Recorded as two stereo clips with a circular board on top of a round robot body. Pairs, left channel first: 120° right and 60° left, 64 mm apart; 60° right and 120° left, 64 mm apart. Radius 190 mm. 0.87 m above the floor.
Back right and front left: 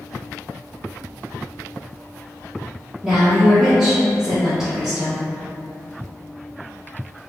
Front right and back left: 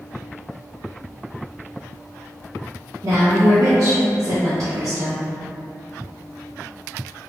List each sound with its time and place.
3.0 s a woman speaking: 145° left, 0.8 m